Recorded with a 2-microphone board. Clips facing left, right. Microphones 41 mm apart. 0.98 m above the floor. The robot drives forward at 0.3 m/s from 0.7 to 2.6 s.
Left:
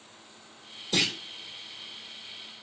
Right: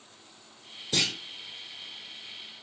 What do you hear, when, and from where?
0.9 s a clunk: 15° left (ahead or behind), 0.8 m